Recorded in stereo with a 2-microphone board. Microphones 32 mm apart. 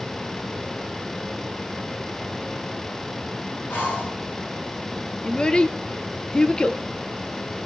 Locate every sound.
3.7 s breathing: 75° left (ahead or behind), 7 m
5.2 s a child speaking: 30° left (ahead or behind), 1.5 m